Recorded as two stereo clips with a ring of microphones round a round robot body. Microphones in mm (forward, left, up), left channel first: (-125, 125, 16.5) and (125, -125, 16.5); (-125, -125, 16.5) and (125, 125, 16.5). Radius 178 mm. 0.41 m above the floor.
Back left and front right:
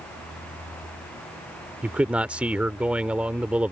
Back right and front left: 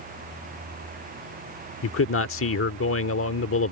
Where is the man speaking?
130° right.